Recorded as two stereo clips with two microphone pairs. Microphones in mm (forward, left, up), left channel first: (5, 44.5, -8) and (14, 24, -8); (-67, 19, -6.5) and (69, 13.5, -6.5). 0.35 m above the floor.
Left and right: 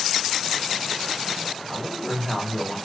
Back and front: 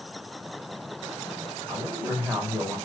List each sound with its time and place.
1.7 s a woman speaking: 75° left, 1.2 m